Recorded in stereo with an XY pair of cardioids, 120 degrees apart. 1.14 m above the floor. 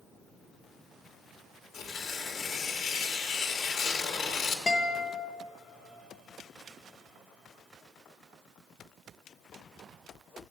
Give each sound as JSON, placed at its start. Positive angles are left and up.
{"t": 1.7, "sound": "tearing paper", "azimuth_deg": 70, "distance_m": 1.4}
{"t": 4.7, "sound": "a guitar", "azimuth_deg": 25, "distance_m": 0.9}